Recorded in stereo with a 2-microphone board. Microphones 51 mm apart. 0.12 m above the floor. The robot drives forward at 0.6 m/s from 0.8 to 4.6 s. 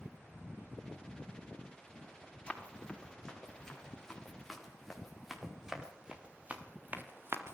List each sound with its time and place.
2.5 s running footsteps: 20° left (ahead or behind), 7 m; by 7.5 s 55° right (ahead or behind), 3 m